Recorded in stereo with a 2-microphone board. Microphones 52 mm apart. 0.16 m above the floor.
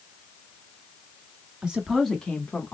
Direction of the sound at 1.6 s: 20° right (ahead or behind).